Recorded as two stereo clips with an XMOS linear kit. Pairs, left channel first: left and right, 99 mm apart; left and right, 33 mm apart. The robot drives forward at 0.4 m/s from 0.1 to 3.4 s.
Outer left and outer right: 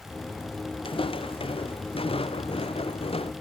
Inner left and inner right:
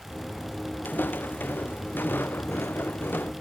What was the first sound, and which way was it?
Footsteps, 60° left (ahead or behind).